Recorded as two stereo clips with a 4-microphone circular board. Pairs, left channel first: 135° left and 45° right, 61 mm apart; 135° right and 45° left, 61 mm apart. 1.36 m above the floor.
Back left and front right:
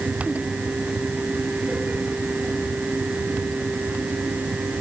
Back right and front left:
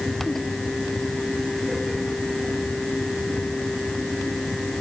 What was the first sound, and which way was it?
Only background noise.